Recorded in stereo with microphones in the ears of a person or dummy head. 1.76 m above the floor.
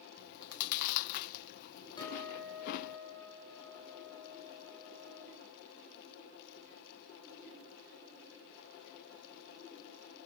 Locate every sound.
0.2 s chewing: 55° left (ahead or behind), 0.5 m
2.0 s a guitar: 20° left (ahead or behind), 8.5 m